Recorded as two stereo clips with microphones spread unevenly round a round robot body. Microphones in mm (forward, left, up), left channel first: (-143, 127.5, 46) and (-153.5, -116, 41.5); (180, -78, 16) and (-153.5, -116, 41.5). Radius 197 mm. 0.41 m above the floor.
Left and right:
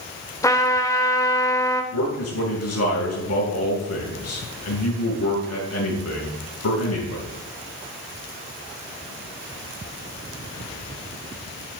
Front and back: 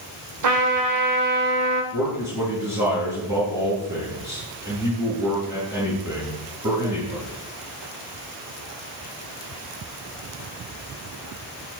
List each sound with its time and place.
0.4 s a trumpet: 165° left, 1.8 m
1.9 s a man speaking: 105° left, 5.5 m